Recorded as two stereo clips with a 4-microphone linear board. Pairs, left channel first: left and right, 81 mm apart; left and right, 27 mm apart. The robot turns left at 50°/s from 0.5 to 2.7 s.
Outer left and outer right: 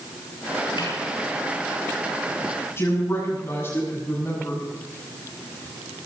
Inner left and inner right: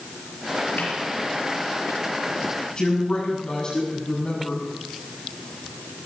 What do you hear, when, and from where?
0.8 s a snare drum: 85° left, 6.5 m; by 1.0 s 80° left, 6.5 m
2.8 s a woman speaking: 35° left (ahead or behind), 7 m